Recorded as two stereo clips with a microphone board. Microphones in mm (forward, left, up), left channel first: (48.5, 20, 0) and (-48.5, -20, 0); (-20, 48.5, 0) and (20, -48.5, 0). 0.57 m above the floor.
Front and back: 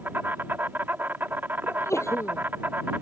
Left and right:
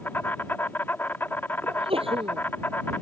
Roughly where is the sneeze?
Ahead right.